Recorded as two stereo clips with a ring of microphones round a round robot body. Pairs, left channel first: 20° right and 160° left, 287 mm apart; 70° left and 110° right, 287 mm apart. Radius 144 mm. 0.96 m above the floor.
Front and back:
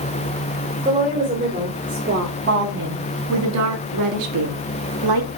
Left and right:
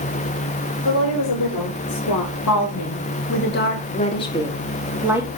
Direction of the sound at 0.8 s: 85° left.